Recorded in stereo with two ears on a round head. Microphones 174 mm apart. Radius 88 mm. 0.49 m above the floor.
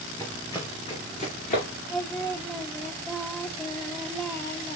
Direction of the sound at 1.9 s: 20° left (ahead or behind).